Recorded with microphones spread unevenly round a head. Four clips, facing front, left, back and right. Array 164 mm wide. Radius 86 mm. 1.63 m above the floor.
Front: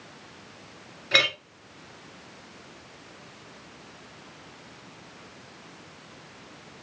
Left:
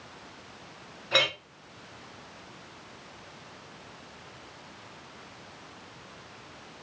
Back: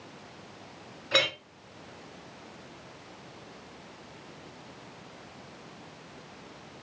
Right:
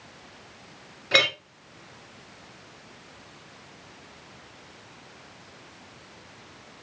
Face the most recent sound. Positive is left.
turn(degrees=-60)